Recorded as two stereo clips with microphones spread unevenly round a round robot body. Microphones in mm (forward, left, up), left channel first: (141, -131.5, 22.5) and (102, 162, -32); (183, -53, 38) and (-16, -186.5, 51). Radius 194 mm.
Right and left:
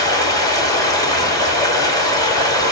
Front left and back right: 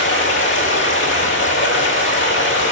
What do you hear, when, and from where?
0.0 s running water: straight ahead, 2 m